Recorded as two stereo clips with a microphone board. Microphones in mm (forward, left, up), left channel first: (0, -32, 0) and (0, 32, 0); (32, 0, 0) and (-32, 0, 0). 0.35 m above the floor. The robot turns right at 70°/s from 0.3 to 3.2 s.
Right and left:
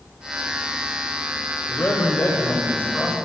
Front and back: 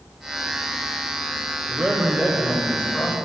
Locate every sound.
1.7 s a man speaking: 125° right, 1.6 m; by 3.1 s 25° right, 1.6 m